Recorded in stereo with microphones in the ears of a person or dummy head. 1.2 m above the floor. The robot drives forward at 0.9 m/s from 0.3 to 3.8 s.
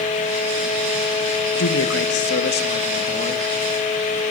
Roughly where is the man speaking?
Left.